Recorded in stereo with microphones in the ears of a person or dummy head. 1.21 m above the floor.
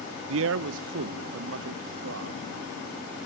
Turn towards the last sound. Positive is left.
turn(degrees=-65)  # may be behind; listen again after turning